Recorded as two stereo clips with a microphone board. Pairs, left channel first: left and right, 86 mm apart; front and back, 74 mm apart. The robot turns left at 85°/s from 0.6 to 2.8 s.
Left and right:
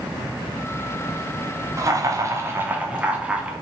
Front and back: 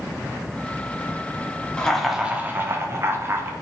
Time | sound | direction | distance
1.8 | laughter | 70° right | 0.7 m